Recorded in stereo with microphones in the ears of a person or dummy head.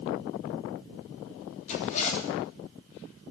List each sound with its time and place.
1.7 s a zipper: 40° left (ahead or behind), 3 m